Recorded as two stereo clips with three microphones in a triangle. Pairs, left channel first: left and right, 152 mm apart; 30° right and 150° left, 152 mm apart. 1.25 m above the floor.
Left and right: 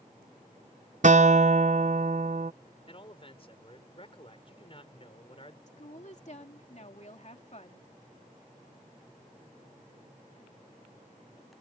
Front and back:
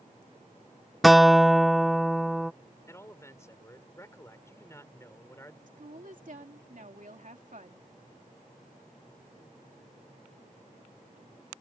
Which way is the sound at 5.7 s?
125° left.